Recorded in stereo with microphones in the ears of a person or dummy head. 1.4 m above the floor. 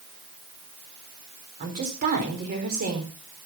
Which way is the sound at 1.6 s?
40° right (ahead or behind).